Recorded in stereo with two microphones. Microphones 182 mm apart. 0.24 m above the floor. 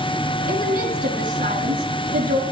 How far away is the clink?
No clink in this recording.